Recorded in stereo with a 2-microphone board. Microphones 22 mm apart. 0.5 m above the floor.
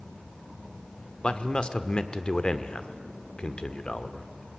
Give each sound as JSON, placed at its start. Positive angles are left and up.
{"t": 1.2, "sound": "a man speaking", "side_deg": 45, "distance_m": 1.1}